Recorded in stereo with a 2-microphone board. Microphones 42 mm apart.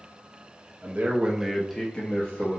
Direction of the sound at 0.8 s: 45° right (ahead or behind).